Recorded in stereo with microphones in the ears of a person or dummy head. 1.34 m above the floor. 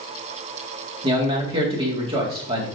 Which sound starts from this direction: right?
A man speaking, at 1.0 s.